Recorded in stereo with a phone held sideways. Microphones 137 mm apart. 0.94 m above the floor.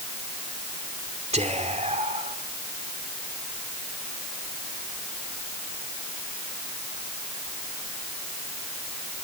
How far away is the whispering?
About 2.5 m.